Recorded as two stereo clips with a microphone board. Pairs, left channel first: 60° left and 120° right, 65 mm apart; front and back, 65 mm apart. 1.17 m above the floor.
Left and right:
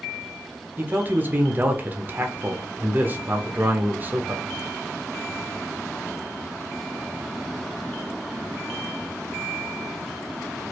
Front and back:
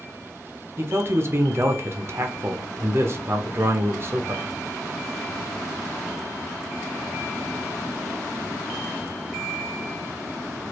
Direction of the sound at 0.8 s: 165° right.